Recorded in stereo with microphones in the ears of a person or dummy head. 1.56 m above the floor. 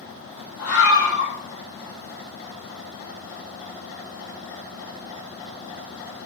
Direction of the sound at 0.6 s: 10° left (ahead or behind).